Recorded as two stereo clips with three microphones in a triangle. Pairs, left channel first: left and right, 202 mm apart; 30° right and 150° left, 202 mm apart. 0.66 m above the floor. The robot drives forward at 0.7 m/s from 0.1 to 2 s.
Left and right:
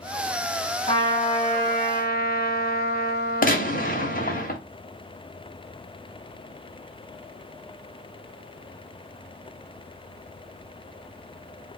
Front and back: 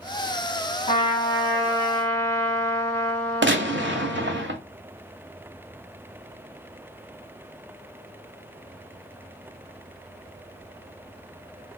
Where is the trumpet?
30° left, 2.0 m; by 4.4 s 45° left, 1.3 m.